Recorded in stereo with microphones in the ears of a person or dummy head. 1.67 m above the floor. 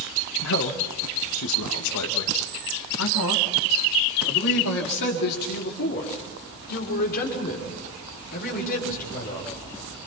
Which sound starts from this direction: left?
A man speaking, at 0.4 s.